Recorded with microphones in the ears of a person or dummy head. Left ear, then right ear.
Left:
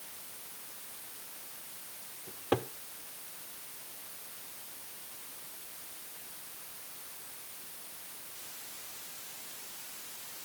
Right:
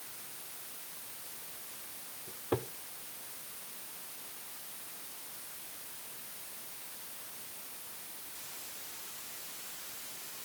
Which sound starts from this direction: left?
A cupboard door, at 2.3 s.